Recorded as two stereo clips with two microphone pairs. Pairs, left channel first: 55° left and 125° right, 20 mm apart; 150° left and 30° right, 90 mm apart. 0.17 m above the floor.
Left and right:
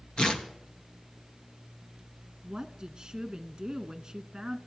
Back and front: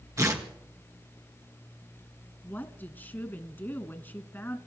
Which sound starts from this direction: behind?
A woman speaking, at 2.4 s.